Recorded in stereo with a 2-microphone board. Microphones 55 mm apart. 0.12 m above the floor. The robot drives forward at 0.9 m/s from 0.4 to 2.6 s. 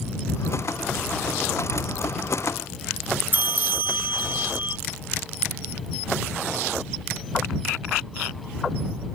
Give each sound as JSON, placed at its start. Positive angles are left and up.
{"t": 3.3, "sound": "a bell", "side_deg": -30}